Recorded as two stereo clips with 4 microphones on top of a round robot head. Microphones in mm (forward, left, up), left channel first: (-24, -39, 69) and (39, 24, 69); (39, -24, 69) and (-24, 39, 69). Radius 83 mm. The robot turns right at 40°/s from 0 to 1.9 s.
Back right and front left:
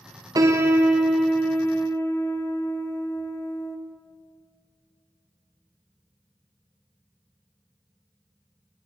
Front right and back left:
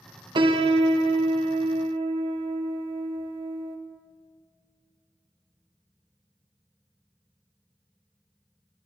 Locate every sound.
0.3 s a piano: 100° left, 0.9 m; by 3.8 s 160° left, 0.9 m